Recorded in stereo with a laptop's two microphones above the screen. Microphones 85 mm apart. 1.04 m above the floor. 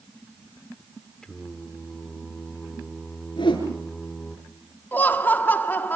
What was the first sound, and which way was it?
Singing, 10° left (ahead or behind).